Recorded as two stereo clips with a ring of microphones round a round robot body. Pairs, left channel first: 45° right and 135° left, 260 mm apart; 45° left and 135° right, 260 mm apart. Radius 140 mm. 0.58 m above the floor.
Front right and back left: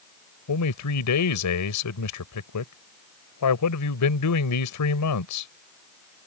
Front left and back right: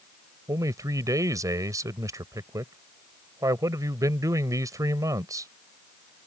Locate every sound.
0.5 s a man speaking: 55° right